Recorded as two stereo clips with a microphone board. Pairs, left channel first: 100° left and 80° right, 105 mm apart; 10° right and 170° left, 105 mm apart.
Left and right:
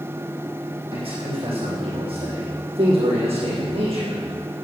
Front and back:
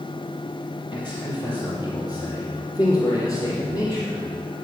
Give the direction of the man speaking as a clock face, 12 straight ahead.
2 o'clock.